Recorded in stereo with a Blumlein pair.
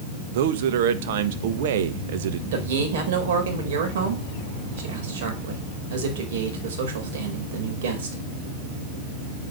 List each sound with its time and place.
0.3 s a man speaking: 55° right, 1.3 m
2.5 s a man speaking: 55° right, 4.5 m